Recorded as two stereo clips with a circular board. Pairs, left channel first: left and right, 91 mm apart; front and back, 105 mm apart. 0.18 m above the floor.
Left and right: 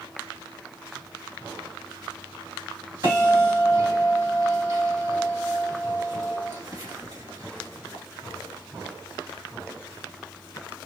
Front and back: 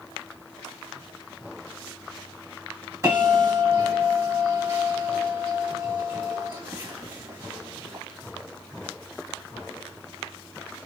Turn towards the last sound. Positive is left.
turn(degrees=-120)